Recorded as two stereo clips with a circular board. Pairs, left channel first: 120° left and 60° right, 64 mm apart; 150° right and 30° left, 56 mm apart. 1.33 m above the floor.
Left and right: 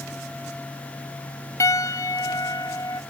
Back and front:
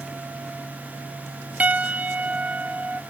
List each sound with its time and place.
1.6 s a piano: 90° left, 1.0 m